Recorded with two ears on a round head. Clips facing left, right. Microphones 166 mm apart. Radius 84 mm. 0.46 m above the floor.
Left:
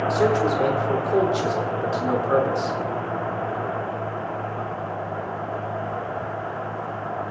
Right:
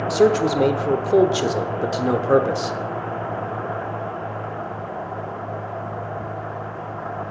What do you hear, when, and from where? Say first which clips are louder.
0.1 s a man speaking: right 5 dB; 40° right (ahead or behind), 1.0 m